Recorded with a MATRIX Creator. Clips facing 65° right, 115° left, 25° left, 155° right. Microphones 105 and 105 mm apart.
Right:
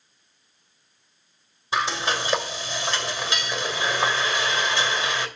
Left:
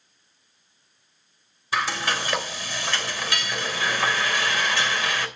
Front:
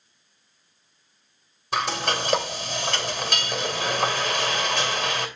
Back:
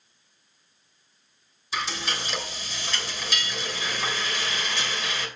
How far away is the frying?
About 2.5 m.